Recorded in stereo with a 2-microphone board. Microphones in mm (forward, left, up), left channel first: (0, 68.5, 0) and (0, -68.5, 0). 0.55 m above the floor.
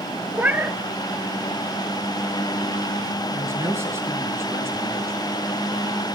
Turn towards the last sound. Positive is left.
turn(degrees=-20)  # may be behind; listen again after turning